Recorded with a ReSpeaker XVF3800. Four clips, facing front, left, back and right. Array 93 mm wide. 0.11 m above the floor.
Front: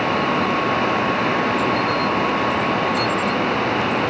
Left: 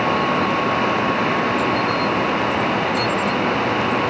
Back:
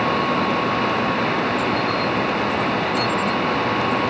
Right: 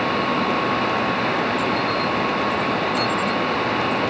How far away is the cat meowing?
I don't hear a cat meowing.